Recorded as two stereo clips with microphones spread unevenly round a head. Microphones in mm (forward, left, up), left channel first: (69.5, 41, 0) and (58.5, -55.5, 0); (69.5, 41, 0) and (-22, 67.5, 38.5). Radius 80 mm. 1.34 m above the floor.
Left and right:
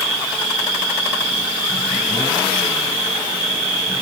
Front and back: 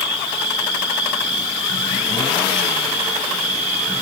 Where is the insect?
Straight behind, 3 m.